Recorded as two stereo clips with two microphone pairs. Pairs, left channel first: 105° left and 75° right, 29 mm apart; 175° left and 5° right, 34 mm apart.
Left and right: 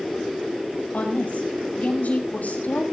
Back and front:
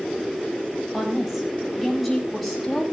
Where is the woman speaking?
80° left, 5.5 m; by 2.8 s 90° left, 7 m.